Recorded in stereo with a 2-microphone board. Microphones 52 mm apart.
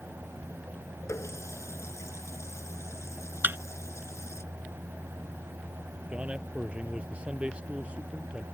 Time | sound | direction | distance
1.1 | a running tap | 70° left (ahead or behind) | ?
3.4 | a thud | 45° right (ahead or behind) | ?
6.1 | a man speaking | 25° right (ahead or behind) | ?